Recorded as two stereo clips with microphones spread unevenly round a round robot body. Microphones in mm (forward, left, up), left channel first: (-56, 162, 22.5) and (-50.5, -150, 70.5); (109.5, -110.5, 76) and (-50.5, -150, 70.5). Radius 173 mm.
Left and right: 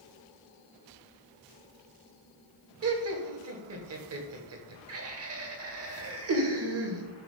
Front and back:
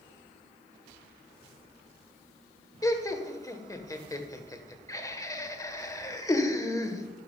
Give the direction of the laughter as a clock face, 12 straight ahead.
2 o'clock.